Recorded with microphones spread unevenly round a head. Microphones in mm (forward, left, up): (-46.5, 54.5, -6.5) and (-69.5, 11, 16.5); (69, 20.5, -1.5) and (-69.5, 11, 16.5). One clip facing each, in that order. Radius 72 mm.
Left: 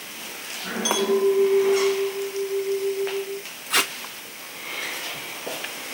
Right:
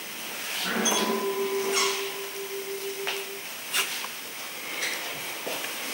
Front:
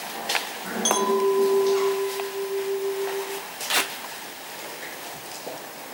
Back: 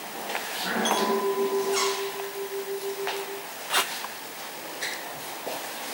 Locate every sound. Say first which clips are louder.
0.8 s a clink: left 10 dB, front 4 dB; 40° left, 0.8 m
3.7 s tape being pulled: left 7 dB, even; 85° left, 0.6 m